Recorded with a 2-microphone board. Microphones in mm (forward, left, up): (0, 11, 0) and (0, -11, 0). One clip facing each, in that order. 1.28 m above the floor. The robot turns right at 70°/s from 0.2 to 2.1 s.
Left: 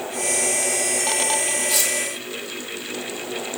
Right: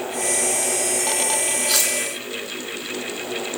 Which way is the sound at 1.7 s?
50° right (ahead or behind).